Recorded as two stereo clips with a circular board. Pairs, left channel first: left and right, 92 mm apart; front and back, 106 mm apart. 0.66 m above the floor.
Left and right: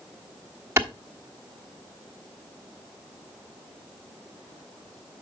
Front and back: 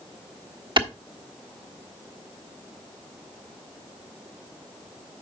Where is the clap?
150° right, 1.3 m.